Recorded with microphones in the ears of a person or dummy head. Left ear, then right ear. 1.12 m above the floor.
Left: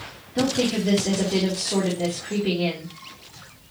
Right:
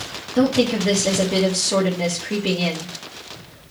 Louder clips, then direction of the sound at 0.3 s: Right 4 dB; 45° right (ahead or behind).